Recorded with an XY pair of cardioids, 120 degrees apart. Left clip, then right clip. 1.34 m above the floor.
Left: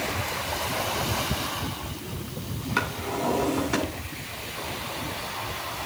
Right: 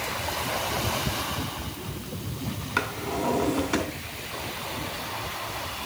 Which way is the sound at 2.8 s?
Straight ahead.